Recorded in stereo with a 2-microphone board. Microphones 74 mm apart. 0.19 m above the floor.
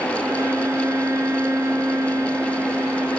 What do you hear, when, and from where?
0.2 s a violin: 45° right (ahead or behind), 2 m